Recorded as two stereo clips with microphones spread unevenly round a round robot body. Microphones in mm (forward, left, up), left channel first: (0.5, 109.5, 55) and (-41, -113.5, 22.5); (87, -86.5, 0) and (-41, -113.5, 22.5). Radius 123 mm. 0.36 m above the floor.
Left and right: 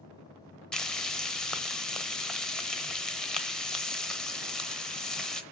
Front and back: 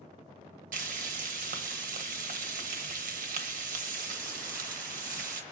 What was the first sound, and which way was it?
Frying, 170° left.